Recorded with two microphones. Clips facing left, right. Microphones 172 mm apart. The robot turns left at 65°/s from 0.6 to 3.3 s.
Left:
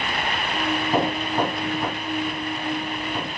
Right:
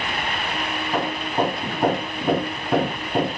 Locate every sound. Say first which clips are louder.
0.9 s hammering: right 1 dB; 15° left; by 3.4 s 140° right